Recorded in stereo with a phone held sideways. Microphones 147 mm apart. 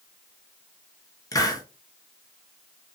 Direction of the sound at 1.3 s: 25° left (ahead or behind).